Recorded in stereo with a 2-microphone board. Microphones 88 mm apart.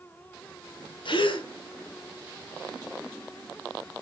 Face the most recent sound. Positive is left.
turn(degrees=70)  # may be behind; listen again after turning